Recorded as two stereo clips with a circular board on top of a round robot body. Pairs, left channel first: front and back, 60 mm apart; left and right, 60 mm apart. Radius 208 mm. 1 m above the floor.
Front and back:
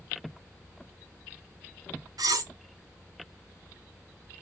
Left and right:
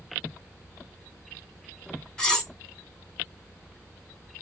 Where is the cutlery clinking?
170° left, 0.9 m.